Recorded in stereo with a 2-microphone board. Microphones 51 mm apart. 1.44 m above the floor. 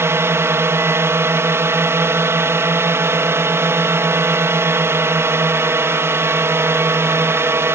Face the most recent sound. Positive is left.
turn(degrees=-55)  # may be behind; listen again after turning